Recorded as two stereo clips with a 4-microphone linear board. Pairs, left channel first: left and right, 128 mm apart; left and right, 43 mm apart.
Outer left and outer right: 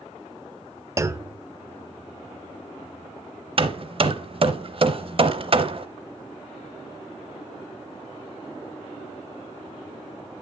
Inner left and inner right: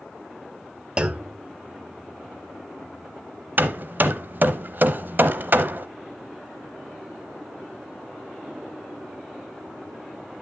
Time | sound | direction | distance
1.0 | a clunk | 25° right (ahead or behind) | 0.6 m
3.6 | hammering | 45° right (ahead or behind) | 0.7 m